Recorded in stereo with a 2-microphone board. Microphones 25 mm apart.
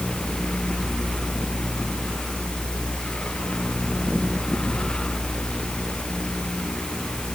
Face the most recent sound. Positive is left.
No sound to turn to.